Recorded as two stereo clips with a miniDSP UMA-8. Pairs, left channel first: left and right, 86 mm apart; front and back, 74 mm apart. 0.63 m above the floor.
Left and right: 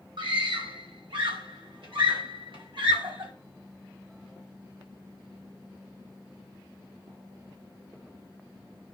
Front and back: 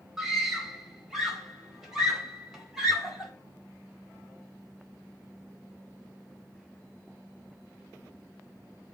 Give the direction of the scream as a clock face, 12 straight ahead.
3 o'clock.